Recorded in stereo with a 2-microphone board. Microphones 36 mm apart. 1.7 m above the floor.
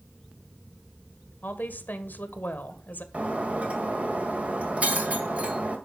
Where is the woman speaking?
60° left (ahead or behind), 1.5 m.